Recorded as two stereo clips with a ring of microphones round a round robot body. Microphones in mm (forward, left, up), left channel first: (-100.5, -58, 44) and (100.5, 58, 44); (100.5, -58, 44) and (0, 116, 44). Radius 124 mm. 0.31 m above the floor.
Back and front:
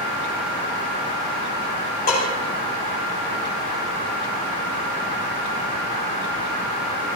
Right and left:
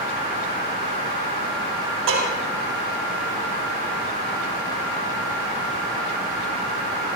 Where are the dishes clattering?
155° left, 8 m.